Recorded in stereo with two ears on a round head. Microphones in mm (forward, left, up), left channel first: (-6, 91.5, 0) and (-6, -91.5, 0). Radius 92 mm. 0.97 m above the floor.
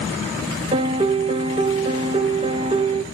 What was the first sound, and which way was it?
A piano, 30° right (ahead or behind).